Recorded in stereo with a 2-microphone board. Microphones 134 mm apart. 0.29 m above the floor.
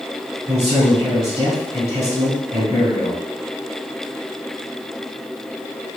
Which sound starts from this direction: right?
A man speaking, at 0.5 s.